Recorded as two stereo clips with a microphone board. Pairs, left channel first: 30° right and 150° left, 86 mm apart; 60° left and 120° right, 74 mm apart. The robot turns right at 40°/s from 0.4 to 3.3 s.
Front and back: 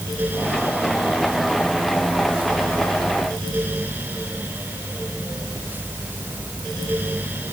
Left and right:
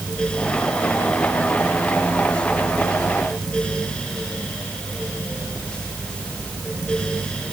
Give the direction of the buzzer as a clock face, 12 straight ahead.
No buzzer in this recording.